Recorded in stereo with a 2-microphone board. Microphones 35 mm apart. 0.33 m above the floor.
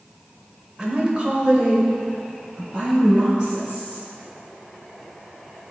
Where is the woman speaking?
20° right (ahead or behind), 0.9 m; by 4.0 s 25° right (ahead or behind), 3 m.